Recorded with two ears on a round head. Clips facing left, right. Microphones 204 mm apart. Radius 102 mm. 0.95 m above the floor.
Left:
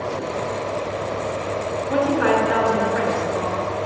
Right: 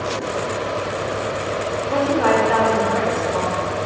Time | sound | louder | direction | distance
1.9 | a woman speaking | right 1 dB | 15° left (ahead or behind) | 2 m